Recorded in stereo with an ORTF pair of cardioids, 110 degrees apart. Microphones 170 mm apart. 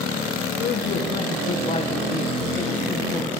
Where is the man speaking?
60° left, 1.6 m; by 3.4 s 15° left, 1.8 m.